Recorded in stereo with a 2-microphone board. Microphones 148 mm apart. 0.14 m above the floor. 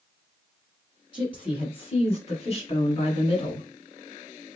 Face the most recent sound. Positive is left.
turn(degrees=35)  # may be behind; listen again after turning